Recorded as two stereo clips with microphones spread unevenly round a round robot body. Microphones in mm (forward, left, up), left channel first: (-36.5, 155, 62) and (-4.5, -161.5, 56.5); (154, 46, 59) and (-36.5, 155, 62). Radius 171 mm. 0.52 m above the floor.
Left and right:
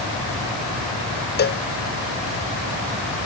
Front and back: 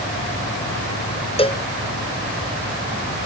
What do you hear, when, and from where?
1.4 s a cowbell: 35° left